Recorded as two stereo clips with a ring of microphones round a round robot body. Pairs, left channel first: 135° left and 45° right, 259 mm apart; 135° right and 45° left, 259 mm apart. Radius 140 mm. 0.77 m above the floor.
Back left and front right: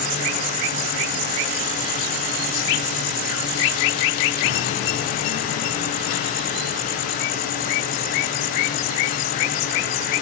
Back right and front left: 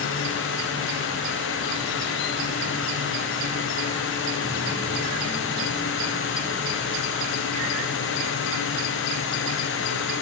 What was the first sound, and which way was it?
Only background noise.